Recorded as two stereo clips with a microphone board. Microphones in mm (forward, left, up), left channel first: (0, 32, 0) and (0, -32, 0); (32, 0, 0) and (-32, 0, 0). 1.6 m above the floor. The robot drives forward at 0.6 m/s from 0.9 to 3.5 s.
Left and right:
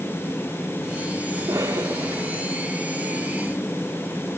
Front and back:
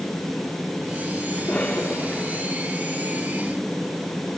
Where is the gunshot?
I don't hear a gunshot.